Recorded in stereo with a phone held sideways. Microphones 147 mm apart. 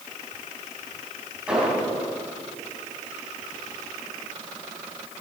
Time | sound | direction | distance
1.5 | an explosion | 10° right (ahead or behind) | 3.5 m